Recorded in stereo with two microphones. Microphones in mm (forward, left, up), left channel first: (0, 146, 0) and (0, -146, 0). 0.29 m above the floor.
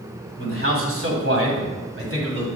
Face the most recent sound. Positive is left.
turn(degrees=-45)  # may be behind; listen again after turning